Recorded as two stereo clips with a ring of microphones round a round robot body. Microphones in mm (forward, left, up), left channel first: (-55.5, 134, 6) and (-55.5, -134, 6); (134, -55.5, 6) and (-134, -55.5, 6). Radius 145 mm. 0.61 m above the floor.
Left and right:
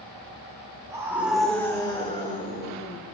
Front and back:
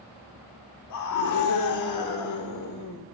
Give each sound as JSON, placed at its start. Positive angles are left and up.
{"t": 0.9, "sound": "a scream", "azimuth_deg": -15, "distance_m": 1.4}